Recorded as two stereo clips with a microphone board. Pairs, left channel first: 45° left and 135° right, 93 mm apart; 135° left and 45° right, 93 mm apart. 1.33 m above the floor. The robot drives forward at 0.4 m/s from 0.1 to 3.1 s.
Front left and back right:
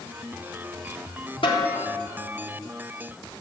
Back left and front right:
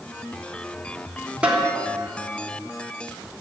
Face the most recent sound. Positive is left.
turn(degrees=40)